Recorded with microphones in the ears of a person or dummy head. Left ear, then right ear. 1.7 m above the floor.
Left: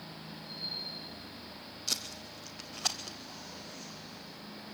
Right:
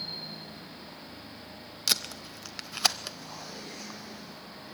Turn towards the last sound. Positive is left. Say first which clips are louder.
# right 7 dB
turn(degrees=-70)  # may be behind; listen again after turning